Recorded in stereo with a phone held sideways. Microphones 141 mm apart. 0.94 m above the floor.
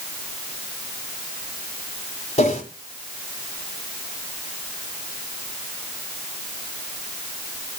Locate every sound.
2.4 s a whoosh: 50° left (ahead or behind), 3 m